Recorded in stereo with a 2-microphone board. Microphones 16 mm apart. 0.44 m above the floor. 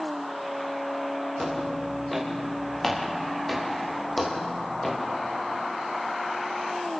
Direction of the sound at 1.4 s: Centre (ahead or behind).